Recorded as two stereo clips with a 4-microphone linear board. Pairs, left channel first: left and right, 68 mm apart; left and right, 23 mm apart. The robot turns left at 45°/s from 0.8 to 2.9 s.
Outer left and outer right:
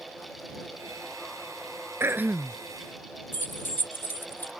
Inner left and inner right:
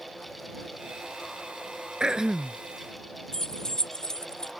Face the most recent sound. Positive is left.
turn(degrees=35)  # may be behind; listen again after turning